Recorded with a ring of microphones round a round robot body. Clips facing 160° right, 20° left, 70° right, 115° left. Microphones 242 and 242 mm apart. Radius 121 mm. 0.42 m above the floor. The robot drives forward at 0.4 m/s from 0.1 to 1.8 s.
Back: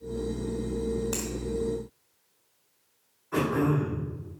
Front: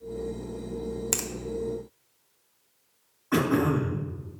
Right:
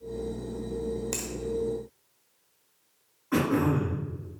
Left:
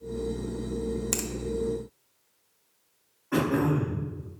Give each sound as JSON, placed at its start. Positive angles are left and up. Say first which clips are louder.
{"t": 1.1, "sound": "a finger snap", "louder": "back 2 dB, left 3 dB", "azimuth_deg": 50, "distance_m": 1.0}
{"t": 3.3, "sound": "throat clearing", "louder": "front 2 dB, even", "azimuth_deg": 15, "distance_m": 1.9}